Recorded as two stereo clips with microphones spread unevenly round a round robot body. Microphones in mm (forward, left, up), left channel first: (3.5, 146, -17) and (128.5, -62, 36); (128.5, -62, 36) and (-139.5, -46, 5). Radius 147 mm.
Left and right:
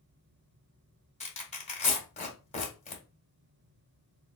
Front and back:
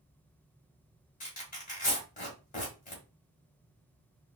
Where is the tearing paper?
60° left, 1.7 m.